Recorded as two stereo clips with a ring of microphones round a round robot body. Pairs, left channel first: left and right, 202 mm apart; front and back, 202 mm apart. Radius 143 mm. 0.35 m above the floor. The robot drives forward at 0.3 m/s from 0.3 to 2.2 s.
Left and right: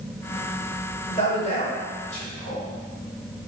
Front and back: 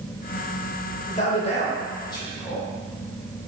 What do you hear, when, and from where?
1.1 s a man speaking: 40° left, 1.3 m; by 2.7 s 60° left, 1.1 m